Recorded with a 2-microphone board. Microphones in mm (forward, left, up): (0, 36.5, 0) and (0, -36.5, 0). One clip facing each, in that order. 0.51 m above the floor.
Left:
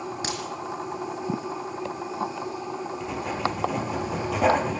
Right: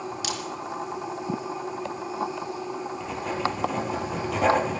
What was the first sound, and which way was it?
A crack, 35° left (ahead or behind).